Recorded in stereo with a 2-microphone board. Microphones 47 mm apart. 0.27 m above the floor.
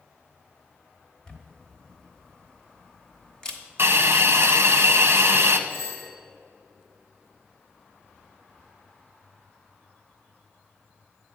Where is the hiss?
60° right (ahead or behind), 0.7 m.